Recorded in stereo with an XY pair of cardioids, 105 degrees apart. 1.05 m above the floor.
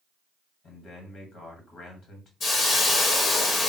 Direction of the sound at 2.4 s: 50° left.